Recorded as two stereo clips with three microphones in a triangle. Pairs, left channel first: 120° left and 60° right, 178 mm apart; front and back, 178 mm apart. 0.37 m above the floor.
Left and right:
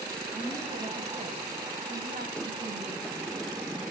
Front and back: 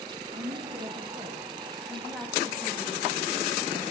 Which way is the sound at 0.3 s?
135° right.